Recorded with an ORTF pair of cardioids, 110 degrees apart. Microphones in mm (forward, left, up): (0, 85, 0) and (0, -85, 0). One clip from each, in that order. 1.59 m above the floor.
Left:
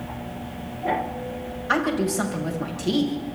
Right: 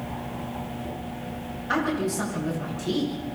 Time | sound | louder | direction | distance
1.7 | a woman speaking | left 3 dB | 35° left | 9.5 m